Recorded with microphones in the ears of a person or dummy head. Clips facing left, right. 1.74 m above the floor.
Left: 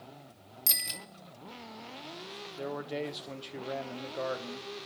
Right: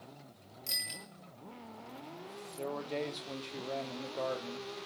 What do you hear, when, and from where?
0.7 s a bicycle bell: 70° left (ahead or behind), 2 m
2.5 s a man speaking: 10° left (ahead or behind), 1.0 m